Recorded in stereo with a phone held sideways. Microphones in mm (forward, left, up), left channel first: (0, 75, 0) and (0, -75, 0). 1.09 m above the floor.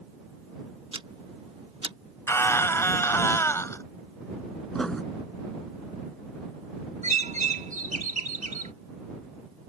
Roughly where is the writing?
Centre.